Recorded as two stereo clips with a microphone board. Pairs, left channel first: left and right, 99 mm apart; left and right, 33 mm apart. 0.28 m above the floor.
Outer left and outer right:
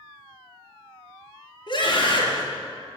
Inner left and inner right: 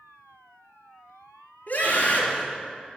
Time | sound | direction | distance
1.7 | a scream | 55° left (ahead or behind) | 5.5 m